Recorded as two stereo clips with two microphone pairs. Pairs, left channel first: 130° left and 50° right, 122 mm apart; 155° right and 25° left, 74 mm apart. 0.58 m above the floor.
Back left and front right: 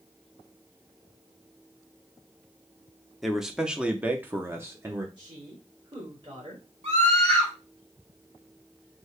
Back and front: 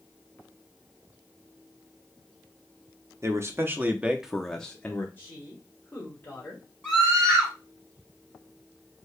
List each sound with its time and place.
3.2 s a man speaking: 35° left, 0.8 m; by 5.1 s 105° right, 0.8 m
5.2 s a woman speaking: 95° right, 1.9 m
6.8 s a scream: 80° right, 3.5 m